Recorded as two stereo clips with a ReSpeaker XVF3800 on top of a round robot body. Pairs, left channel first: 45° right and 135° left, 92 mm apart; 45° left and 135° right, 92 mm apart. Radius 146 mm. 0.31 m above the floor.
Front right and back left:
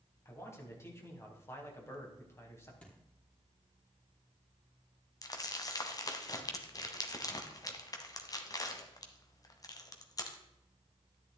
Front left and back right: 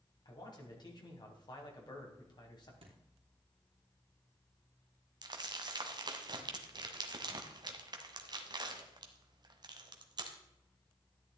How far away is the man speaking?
About 4 m.